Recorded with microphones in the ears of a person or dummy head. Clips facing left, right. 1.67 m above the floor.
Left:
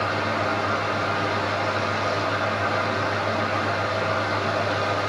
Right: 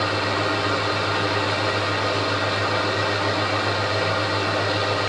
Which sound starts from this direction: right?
A fan, at 0.0 s.